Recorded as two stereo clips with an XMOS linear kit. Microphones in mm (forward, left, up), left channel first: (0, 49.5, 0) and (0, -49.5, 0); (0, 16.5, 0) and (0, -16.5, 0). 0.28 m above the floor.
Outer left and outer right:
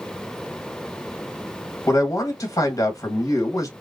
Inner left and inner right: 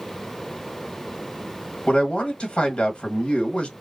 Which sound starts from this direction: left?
A man speaking, at 1.9 s.